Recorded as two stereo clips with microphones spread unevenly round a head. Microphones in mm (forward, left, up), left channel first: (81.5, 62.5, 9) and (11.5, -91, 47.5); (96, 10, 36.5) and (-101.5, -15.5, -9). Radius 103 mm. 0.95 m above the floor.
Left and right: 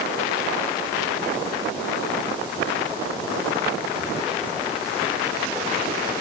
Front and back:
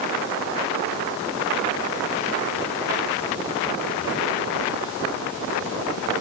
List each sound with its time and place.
Only background noise.